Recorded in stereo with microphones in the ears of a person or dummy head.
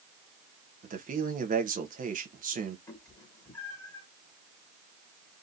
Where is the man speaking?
40° right (ahead or behind), 0.9 m.